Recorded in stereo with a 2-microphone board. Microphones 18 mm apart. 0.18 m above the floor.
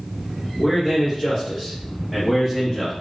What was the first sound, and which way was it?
A man speaking, 5° left (ahead or behind).